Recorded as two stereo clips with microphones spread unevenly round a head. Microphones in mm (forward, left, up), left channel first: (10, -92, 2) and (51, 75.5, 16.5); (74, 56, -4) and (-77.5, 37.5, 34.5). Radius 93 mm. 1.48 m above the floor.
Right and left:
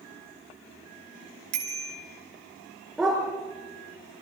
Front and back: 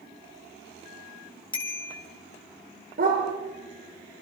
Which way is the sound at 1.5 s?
65° left.